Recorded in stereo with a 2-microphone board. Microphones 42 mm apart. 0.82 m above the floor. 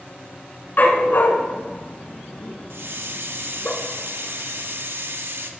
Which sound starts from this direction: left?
A dog barking, at 0.8 s.